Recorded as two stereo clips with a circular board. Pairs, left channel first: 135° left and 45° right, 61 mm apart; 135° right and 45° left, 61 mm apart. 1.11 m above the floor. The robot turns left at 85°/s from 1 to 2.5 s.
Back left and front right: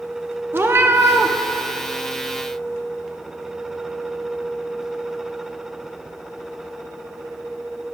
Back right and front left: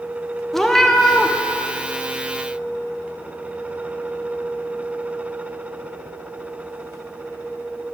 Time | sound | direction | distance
0.5 | a cat meowing | 50° right | 0.6 m